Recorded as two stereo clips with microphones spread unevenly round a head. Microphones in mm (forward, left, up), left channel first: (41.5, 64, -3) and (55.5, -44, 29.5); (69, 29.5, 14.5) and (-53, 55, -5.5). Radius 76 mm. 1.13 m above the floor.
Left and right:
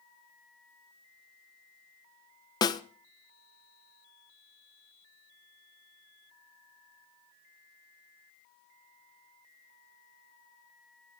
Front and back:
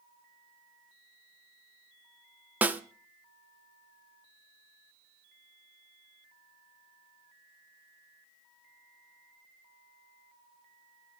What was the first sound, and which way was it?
A snare drum, 105° left.